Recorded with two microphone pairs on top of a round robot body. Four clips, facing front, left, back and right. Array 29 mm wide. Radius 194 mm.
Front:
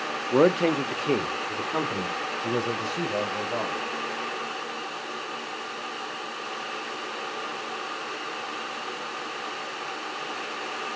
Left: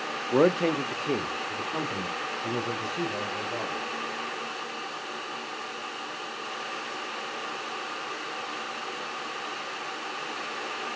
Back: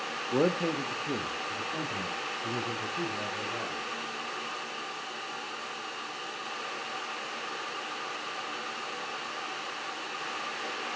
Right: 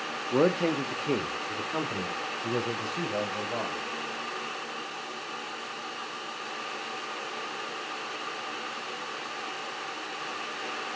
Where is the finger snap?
No finger snap in this recording.